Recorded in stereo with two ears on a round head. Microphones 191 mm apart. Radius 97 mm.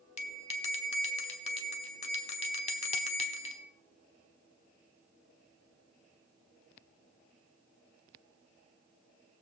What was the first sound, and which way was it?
A bell, 30° left (ahead or behind).